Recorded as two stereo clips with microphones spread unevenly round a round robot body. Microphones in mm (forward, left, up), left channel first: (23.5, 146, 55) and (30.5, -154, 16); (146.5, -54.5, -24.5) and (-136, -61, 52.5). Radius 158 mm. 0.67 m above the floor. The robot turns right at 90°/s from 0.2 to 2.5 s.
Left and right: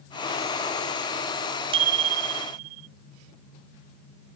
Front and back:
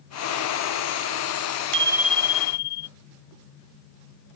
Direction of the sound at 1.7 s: 165° right.